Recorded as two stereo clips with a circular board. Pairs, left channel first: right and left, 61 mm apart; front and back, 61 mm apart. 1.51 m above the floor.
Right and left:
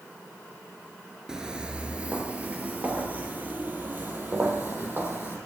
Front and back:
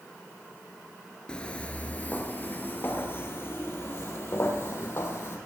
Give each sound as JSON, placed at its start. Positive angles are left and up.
{"t": 1.3, "sound": "footsteps", "azimuth_deg": 35, "distance_m": 1.5}